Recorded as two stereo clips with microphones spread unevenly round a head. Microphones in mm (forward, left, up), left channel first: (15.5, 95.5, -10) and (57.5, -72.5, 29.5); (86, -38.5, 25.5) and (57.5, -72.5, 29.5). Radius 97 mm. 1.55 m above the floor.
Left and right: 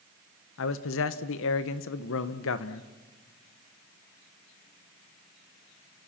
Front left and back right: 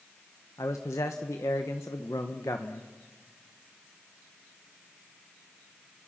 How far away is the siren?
I don't hear a siren.